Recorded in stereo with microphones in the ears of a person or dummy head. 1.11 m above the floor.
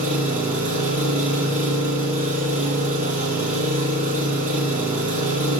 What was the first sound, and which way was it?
An engine running, 35° right (ahead or behind).